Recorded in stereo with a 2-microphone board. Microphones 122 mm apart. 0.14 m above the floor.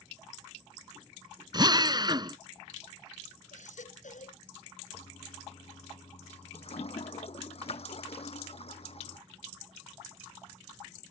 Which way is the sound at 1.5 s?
35° right (ahead or behind).